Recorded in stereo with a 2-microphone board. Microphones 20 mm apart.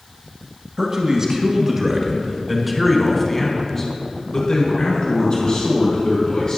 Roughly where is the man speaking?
Right.